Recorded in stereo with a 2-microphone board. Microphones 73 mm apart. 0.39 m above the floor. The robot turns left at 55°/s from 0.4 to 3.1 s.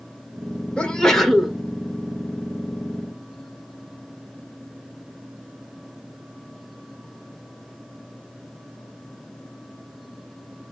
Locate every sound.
0.8 s a sneeze: 15° left (ahead or behind), 0.8 m; by 1.6 s 5° right (ahead or behind), 0.8 m